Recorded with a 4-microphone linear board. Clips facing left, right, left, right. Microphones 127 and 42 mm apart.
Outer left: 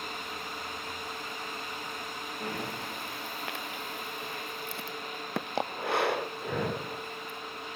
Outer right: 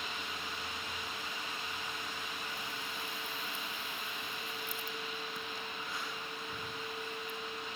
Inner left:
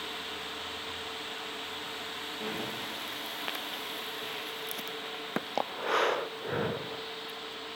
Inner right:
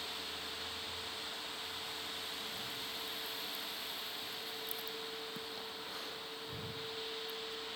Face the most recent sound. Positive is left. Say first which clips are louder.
# outer left 7 dB, inner left 8 dB
turn(degrees=70)  # may be behind; listen again after turning